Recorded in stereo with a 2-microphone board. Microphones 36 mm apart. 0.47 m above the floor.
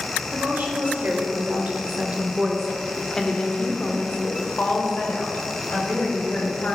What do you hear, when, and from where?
0.3 s a woman speaking: 65° right (ahead or behind), 1.7 m; by 6.8 s 65° left (ahead or behind), 2.5 m